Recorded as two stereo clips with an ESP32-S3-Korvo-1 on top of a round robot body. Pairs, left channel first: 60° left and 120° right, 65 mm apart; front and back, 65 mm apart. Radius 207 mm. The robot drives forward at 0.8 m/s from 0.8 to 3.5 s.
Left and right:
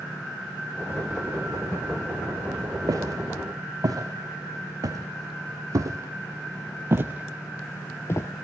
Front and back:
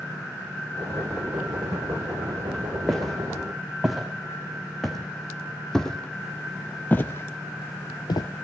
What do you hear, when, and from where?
2.9 s footsteps: 85° right, 3.5 m; by 8.3 s 20° left, 0.6 m